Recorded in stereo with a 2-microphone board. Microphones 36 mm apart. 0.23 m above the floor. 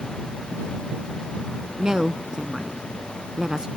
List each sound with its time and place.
1.8 s a woman speaking: 20° right (ahead or behind)